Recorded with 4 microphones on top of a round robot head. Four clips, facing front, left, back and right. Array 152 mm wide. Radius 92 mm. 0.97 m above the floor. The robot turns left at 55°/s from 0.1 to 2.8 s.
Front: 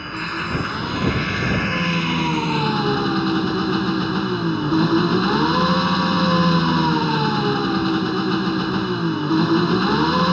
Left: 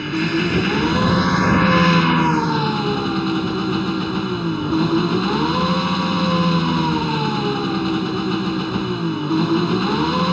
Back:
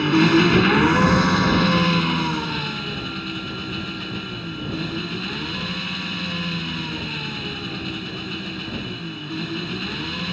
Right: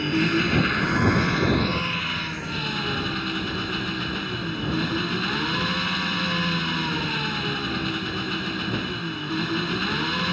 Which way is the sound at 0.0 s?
170° right.